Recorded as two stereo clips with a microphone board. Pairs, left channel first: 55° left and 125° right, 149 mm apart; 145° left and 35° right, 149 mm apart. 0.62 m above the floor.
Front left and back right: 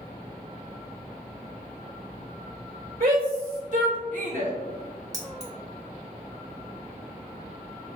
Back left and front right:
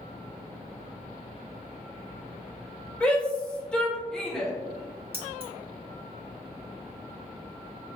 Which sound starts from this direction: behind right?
A shout, at 3.0 s.